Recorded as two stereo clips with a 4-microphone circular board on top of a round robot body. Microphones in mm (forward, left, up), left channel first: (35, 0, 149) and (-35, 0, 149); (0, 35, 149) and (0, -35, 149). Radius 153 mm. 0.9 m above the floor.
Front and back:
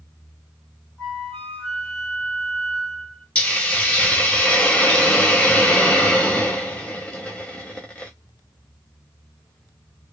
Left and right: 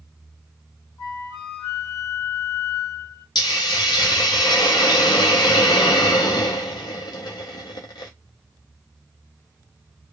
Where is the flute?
80° left, 1.9 m.